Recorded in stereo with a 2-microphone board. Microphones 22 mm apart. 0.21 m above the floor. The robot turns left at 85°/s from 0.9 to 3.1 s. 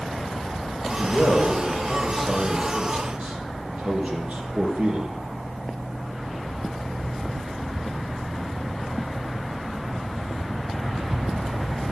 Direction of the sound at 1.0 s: 115° left.